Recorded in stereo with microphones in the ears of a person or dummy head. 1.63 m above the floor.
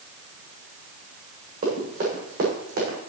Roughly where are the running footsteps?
Right.